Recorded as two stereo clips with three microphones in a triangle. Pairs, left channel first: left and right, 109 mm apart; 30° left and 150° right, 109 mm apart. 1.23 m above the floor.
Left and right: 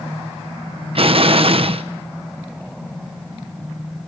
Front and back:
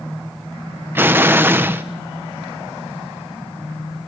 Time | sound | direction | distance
0.9 | an explosion | 80° right | 1.0 m